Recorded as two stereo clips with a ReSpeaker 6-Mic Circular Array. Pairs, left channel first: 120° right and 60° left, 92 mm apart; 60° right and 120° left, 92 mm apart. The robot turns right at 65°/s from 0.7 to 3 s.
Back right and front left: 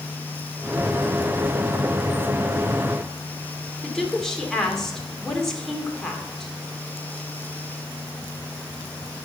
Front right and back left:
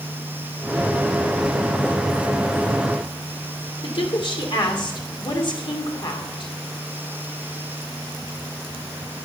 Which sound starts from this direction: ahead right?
A woman speaking, at 3.8 s.